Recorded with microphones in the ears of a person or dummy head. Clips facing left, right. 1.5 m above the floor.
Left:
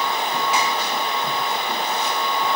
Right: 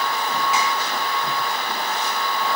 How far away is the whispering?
I don't hear whispering.